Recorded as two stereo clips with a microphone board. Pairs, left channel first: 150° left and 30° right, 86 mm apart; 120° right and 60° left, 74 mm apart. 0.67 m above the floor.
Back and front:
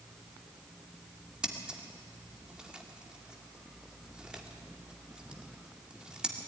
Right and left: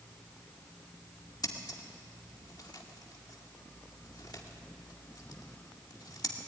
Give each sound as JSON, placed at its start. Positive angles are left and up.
{"t": 1.4, "sound": "scissors", "azimuth_deg": -110, "distance_m": 1.9}